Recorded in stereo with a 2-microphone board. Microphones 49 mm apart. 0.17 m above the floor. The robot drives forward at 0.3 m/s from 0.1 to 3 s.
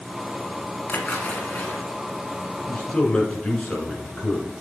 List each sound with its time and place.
0.9 s a splash: 35° left (ahead or behind), 1.3 m; by 1.8 s 30° left (ahead or behind), 1.5 m
2.7 s a man speaking: 20° left (ahead or behind), 1.5 m